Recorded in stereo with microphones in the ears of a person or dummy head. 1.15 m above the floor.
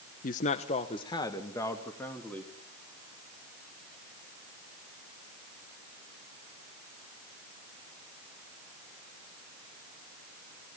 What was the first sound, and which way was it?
A man speaking, 40° left (ahead or behind).